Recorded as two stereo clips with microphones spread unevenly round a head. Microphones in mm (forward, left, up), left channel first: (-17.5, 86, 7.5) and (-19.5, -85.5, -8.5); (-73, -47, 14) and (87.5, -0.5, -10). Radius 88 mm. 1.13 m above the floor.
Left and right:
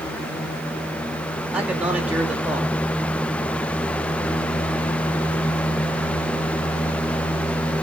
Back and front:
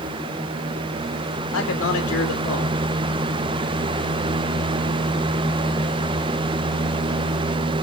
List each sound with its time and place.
1.5 s a man speaking: 175° right, 3 m